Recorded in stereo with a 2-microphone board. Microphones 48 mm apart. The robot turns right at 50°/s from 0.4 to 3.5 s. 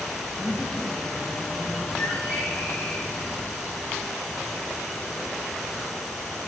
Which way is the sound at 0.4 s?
145° left.